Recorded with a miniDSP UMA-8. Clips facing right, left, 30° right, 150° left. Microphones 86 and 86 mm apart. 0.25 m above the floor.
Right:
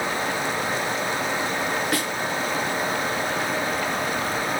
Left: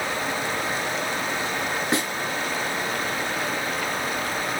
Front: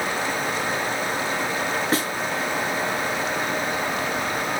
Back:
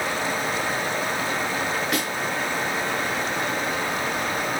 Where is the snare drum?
25° left, 3 m.